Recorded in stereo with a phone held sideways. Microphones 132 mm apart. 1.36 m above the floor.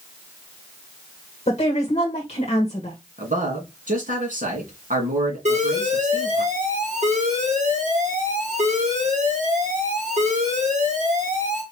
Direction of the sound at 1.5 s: 50° left (ahead or behind).